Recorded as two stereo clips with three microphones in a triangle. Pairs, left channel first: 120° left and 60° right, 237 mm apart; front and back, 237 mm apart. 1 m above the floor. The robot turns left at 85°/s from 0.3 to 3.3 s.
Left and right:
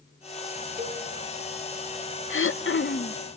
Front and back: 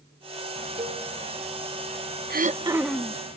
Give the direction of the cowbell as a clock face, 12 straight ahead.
4 o'clock.